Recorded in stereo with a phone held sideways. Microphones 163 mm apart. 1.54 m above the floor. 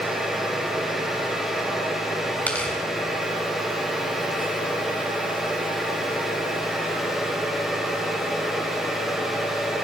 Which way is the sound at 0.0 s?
Centre (ahead or behind).